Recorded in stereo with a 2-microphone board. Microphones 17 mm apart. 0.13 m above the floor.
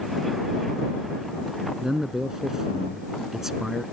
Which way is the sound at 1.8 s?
30° right (ahead or behind).